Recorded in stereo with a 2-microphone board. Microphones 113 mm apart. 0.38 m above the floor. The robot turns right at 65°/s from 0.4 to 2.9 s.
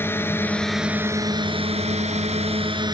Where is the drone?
20° left (ahead or behind); by 3.0 s 40° right (ahead or behind).